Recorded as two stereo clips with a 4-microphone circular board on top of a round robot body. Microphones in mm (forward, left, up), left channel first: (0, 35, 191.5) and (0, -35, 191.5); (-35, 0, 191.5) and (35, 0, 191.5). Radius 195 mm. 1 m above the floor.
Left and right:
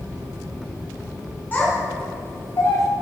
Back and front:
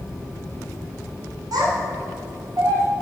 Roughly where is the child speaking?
Ahead left.